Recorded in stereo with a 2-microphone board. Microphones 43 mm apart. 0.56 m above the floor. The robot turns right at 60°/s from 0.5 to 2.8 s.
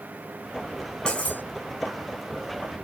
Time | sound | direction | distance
1.1 | cutlery clinking | 25° left (ahead or behind) | 0.8 m